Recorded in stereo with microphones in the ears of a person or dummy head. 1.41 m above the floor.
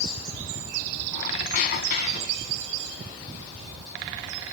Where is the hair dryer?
I don't hear a hair dryer.